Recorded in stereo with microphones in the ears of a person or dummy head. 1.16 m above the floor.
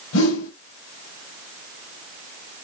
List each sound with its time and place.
0.1 s a whoosh: 70° left (ahead or behind), 1.5 m